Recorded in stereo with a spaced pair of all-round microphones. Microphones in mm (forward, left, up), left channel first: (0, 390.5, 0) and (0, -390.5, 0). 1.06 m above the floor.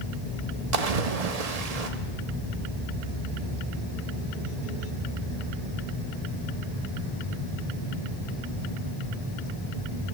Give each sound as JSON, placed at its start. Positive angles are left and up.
{"t": 0.7, "sound": "a splash", "side_deg": -55, "distance_m": 0.8}